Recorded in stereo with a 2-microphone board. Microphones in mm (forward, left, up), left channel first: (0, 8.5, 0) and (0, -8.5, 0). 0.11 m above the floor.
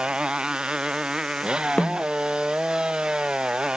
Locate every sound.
0.0 s a motorcycle: 75° right (ahead or behind); by 3.8 s 70° right (ahead or behind)
1.8 s a snare drum: 85° left